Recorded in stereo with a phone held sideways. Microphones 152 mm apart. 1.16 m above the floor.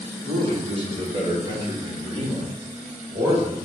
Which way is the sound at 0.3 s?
50° right (ahead or behind).